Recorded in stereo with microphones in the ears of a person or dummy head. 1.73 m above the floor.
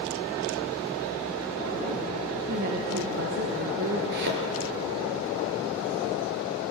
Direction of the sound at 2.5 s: 45° right (ahead or behind).